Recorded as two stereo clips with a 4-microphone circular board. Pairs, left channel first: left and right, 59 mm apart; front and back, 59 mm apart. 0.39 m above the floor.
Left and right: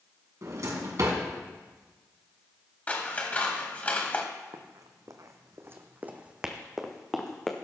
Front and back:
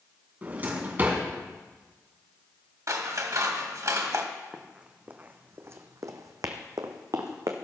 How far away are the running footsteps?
About 1.4 m.